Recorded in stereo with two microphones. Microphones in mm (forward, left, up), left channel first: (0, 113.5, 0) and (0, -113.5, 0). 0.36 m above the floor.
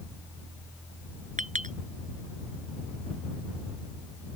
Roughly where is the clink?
Right.